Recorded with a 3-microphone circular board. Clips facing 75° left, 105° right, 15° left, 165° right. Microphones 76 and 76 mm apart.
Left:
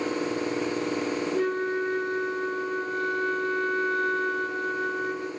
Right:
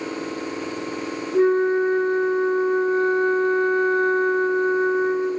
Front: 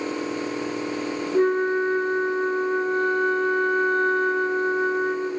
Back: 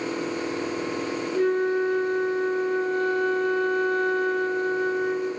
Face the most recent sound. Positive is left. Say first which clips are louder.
# right 12 dB, front 2 dB
turn(degrees=-40)